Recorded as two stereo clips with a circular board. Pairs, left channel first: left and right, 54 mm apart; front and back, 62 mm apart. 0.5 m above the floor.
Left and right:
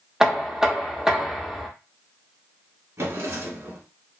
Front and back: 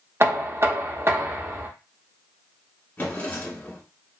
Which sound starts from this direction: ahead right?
A drawer, at 3.0 s.